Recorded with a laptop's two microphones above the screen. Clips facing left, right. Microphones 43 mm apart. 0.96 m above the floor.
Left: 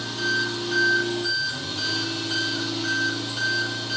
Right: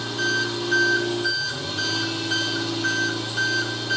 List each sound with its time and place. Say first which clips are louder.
0.0 s an engine running: right 1 dB; centre (ahead or behind), 8.5 m